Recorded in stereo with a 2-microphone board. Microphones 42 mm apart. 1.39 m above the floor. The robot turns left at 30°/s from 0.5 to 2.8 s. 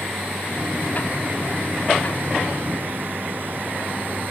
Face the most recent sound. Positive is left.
turn(degrees=-45)  # may be behind; listen again after turning